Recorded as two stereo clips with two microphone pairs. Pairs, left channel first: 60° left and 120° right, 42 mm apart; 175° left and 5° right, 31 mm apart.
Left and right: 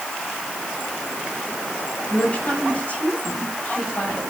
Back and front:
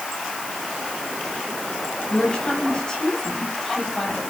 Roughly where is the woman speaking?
Behind left.